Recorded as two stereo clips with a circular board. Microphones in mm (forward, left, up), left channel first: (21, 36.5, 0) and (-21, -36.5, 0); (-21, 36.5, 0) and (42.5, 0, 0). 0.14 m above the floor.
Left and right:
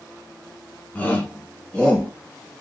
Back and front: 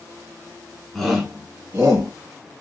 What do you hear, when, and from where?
0.9 s a shout: 70° left, 1.7 m; by 2.1 s 5° right, 2.5 m